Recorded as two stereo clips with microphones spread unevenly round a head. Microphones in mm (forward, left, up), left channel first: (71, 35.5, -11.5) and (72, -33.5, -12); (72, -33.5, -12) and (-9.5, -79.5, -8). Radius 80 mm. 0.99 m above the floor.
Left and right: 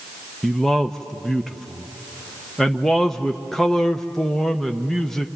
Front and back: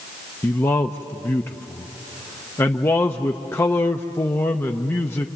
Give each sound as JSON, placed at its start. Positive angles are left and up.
{"t": 0.4, "sound": "a man speaking", "azimuth_deg": 10, "distance_m": 0.8}